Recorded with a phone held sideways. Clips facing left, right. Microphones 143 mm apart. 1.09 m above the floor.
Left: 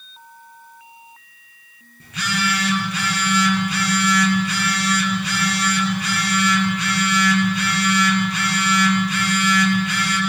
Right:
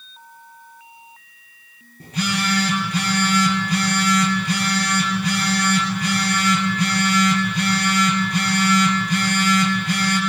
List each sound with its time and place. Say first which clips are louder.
2.0 s a phone buzzing: right 2 dB; 35° right (ahead or behind), 8 m